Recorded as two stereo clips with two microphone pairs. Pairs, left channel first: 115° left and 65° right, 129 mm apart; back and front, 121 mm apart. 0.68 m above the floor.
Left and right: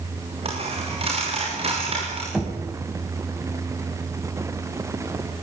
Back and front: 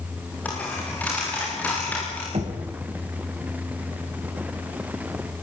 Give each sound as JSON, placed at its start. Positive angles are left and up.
{"t": 0.5, "sound": "a dropped coin", "azimuth_deg": -105, "distance_m": 9.0}
{"t": 2.3, "sound": "knocking", "azimuth_deg": 25, "distance_m": 3.5}